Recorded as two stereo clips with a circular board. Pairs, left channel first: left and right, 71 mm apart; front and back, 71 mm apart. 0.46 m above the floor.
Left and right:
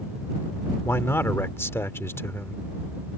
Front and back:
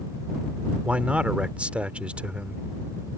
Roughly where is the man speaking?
Behind left.